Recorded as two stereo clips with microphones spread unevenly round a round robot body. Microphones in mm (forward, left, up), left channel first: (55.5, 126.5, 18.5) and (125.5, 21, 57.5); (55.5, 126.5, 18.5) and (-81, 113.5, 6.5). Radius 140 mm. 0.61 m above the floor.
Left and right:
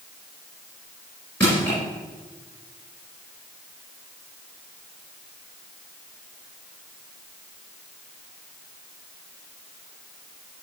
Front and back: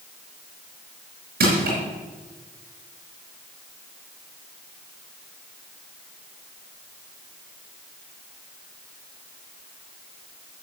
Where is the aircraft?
No aircraft in this recording.